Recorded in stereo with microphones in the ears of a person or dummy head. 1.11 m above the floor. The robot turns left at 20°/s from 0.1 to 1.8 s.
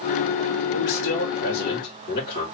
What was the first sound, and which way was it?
A man speaking, 55° left (ahead or behind).